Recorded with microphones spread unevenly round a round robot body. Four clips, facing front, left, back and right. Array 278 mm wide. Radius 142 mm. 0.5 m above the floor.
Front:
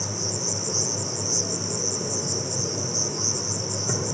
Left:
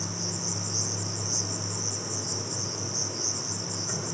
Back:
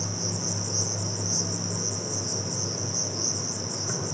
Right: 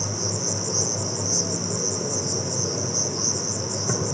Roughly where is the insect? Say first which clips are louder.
Right 6 dB, front 2 dB; ahead right.